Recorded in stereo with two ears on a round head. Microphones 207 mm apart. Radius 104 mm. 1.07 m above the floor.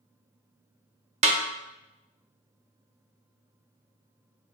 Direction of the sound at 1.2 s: 30° right (ahead or behind).